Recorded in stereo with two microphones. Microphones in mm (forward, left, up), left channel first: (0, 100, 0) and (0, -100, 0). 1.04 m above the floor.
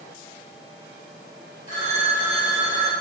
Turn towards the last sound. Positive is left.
turn(degrees=55)  # may be behind; listen again after turning